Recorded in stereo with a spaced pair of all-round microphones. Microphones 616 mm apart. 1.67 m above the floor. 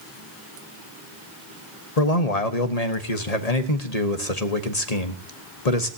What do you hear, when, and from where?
2.0 s a man speaking: 80° left, 1.3 m